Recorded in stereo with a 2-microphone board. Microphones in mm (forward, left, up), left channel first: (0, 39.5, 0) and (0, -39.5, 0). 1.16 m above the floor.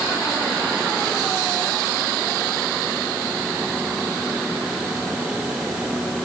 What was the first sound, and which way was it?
Only background noise.